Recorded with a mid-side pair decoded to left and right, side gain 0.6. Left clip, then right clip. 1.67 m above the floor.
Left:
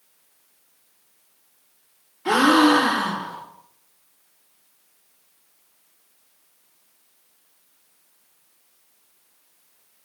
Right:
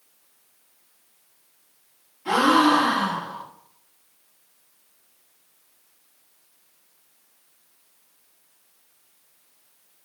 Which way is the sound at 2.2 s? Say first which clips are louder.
Left 2 dB; 45° left.